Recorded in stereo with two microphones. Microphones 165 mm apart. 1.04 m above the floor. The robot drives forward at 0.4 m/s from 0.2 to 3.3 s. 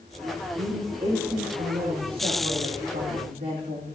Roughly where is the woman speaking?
Right.